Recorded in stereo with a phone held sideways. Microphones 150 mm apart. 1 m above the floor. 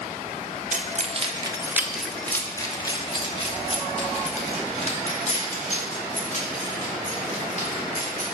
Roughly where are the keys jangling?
Right.